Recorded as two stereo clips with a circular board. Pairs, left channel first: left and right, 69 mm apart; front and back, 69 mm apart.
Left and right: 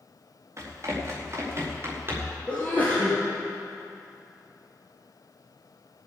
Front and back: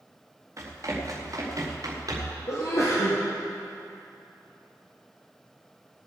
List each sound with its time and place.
0.6 s running footsteps: 135° right, 5 m; by 2.4 s 145° right, 5.5 m
2.5 s a sneeze: 25° left, 3 m